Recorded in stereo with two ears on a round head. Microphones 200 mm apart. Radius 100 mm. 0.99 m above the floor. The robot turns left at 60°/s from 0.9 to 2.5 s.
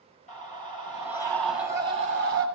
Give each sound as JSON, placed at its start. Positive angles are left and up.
{"t": 0.3, "sound": "a scream", "azimuth_deg": 35, "distance_m": 8.0}